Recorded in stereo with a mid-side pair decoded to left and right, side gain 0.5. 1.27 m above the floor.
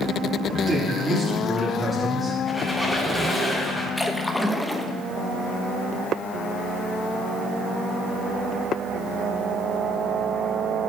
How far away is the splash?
About 1.0 m.